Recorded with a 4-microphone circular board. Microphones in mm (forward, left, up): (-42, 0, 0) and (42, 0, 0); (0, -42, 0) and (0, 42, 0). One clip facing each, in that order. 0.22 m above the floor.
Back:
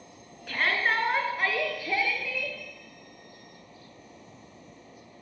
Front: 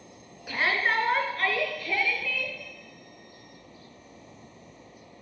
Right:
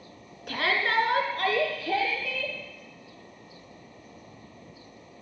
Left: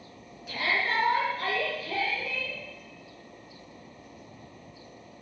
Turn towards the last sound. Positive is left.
turn(degrees=-110)